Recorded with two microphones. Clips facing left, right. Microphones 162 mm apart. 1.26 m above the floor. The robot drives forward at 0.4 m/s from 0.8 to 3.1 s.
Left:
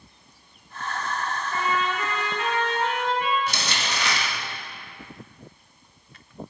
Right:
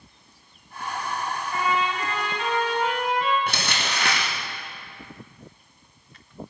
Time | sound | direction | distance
1.5 | a trumpet | 45° left (ahead or behind) | 2.5 m
3.5 | crumpling | 55° right (ahead or behind) | 1.1 m